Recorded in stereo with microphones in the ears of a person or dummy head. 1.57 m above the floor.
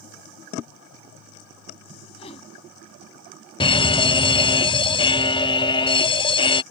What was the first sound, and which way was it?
A whoosh, 35° left (ahead or behind).